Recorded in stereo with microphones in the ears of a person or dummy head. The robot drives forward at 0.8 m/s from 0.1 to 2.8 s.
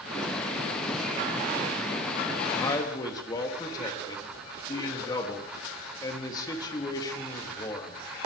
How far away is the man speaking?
About 3.5 m.